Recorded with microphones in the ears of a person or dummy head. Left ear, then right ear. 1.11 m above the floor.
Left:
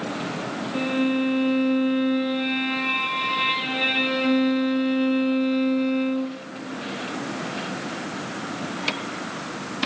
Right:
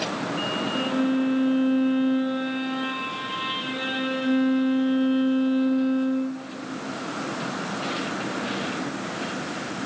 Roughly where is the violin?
Left.